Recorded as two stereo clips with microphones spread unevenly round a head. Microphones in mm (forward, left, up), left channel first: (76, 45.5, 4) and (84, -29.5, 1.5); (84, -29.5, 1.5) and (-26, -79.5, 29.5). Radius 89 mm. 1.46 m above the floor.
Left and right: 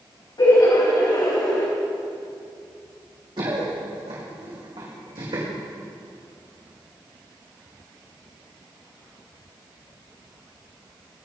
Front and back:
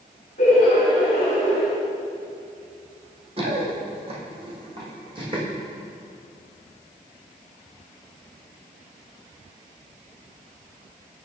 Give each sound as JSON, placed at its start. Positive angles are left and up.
{"t": 0.4, "sound": "laughter", "azimuth_deg": 70, "distance_m": 3.5}
{"t": 3.4, "sound": "running footsteps", "azimuth_deg": -130, "distance_m": 4.5}